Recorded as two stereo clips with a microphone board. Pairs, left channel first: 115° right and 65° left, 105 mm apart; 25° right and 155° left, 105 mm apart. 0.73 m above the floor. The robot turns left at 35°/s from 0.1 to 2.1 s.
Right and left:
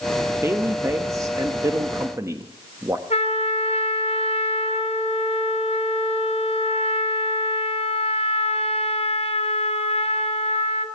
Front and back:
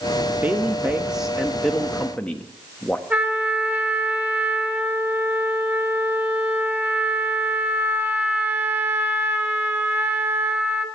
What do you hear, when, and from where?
0.4 s a woman speaking: 105° left, 1.0 m; by 3.0 s 45° left, 1.0 m
3.1 s a trumpet: 130° right, 2.5 m